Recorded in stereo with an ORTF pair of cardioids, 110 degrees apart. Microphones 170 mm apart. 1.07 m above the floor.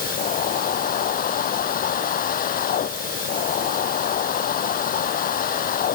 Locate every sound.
0.0 s a machine running: 55° left